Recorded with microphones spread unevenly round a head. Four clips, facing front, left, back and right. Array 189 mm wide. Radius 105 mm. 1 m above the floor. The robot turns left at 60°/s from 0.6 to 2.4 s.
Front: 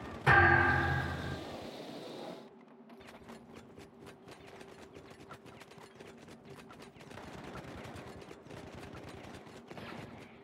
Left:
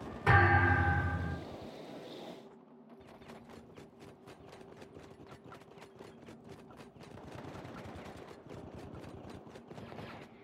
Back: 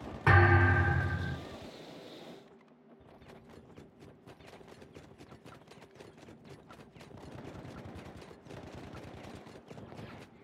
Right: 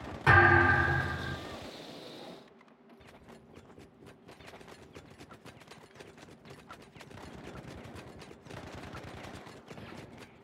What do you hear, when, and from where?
0.3 s a thud: 170° right, 2 m; by 1.4 s 145° left, 2 m